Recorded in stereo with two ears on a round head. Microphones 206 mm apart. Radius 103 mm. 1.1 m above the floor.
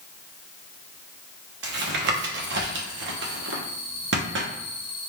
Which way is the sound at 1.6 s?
50° right (ahead or behind).